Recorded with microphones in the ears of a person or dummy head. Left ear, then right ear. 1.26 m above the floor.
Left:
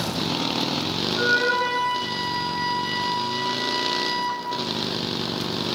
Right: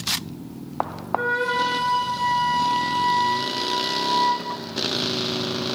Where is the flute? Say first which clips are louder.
Left 1 dB; 50° right (ahead or behind), 7 m.